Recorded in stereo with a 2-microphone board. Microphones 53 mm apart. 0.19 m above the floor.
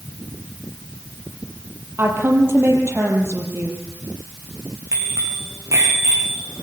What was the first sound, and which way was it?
A woman speaking, 50° right (ahead or behind).